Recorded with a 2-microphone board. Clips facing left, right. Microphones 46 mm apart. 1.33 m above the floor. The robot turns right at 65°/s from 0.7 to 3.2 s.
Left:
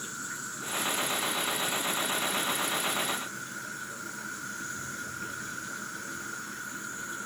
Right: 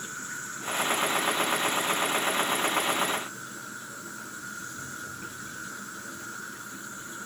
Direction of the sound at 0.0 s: 45° right.